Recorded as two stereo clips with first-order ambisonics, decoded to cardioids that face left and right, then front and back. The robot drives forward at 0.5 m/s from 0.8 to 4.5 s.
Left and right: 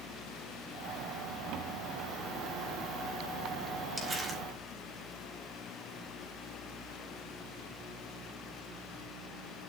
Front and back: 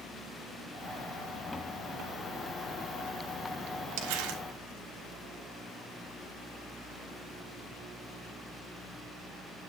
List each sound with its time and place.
4.0 s crumpling: 165° right, 4.5 m